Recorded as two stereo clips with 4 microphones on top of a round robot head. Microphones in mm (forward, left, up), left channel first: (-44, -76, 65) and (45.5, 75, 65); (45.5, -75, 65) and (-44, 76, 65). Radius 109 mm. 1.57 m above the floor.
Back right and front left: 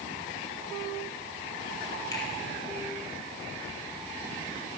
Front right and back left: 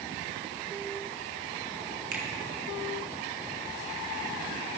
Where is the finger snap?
165° left, 1.7 m.